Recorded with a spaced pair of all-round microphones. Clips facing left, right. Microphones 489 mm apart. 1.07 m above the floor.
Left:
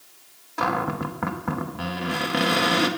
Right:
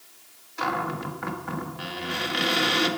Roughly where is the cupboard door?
Left.